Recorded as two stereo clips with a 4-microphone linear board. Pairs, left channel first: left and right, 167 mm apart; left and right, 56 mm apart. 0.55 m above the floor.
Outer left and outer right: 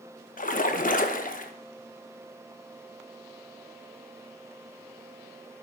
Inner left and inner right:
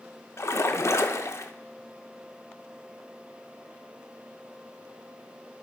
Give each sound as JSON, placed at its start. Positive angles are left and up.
{"t": 0.4, "sound": "a splash", "side_deg": 50, "distance_m": 0.6}